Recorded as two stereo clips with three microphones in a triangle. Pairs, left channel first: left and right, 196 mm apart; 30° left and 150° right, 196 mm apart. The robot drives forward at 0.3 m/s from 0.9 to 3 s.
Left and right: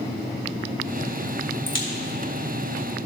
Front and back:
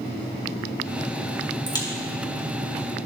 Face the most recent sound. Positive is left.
turn(degrees=105)